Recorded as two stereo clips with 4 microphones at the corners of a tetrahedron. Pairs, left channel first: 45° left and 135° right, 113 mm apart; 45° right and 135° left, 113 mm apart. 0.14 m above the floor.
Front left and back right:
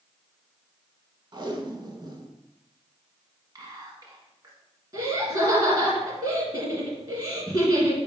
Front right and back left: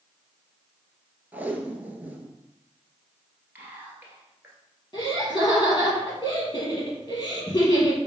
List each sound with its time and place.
1.3 s tape being pulled: 160° right, 0.5 m
3.5 s whispering: 160° right, 1.5 m
4.9 s laughter: 90° right, 1.9 m